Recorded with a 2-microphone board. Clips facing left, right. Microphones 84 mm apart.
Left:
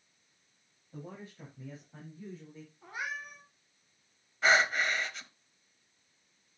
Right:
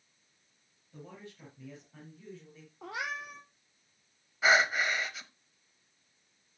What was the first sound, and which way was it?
A man speaking, 30° left (ahead or behind).